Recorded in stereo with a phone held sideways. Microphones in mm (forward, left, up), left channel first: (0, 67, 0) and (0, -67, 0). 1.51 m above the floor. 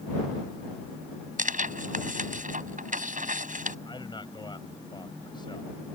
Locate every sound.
1.4 s tearing paper: 80° right
3.9 s a man speaking: 35° left (ahead or behind)